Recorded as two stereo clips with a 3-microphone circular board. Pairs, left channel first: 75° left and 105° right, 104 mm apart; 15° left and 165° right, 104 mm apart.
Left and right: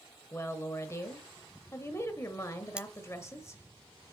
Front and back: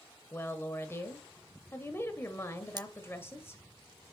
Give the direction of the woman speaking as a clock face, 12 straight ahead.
10 o'clock.